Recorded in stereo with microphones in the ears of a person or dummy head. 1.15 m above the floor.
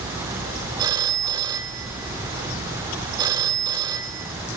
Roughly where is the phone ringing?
Right.